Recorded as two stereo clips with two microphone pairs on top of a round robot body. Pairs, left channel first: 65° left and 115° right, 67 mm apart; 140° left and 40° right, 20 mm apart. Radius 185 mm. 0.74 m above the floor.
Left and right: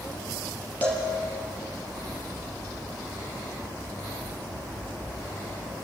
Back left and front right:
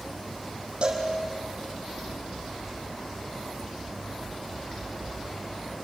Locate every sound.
0.8 s a cowbell: 5° right, 5.5 m